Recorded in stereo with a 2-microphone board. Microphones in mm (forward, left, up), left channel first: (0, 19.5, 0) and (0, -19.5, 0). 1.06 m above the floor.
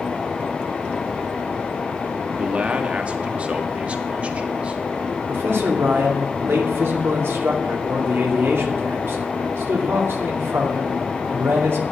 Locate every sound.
2.4 s a man speaking: 35° right (ahead or behind), 1.6 m
5.3 s a man speaking: 80° right, 2.5 m